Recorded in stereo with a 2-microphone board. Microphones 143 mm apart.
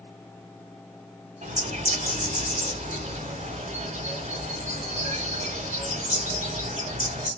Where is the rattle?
No rattle in this recording.